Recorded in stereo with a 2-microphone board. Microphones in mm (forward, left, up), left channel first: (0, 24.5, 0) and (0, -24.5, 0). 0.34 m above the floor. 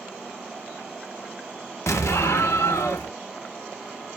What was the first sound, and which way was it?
An explosion, 70° left (ahead or behind).